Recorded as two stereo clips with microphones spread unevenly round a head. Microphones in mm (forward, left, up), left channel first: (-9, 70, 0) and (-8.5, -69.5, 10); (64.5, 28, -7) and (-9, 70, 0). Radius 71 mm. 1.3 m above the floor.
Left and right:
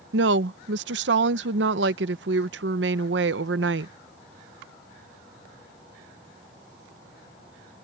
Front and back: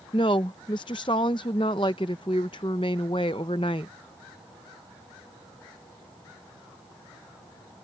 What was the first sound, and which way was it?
A woman speaking, 90° right.